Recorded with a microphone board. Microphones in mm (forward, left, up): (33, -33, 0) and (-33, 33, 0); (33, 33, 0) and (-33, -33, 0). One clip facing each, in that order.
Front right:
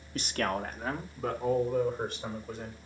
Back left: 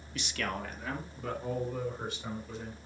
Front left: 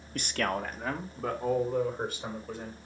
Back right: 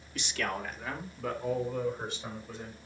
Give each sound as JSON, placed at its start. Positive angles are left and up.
{"t": 0.1, "sound": "a man speaking", "azimuth_deg": 5, "distance_m": 1.1}